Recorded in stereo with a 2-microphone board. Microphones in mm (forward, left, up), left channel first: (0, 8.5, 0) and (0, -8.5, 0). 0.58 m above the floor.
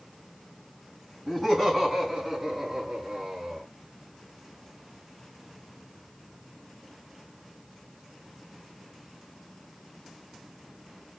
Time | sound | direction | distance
1.3 | laughter | 10° left (ahead or behind) | 5.5 m